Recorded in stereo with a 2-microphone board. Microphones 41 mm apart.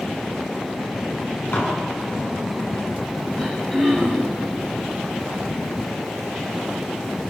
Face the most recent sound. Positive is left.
turn(degrees=10)  # may be behind; listen again after turning